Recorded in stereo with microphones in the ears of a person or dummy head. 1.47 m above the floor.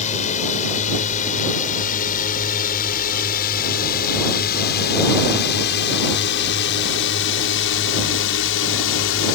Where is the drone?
40° left (ahead or behind); by 9.4 s 75° left (ahead or behind).